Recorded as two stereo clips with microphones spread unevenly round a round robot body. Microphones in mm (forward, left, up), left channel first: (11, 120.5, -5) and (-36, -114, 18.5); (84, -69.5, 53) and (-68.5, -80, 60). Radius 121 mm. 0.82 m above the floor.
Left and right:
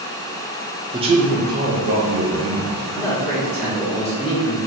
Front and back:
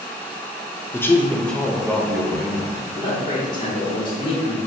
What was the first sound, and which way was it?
A man speaking, 40° right.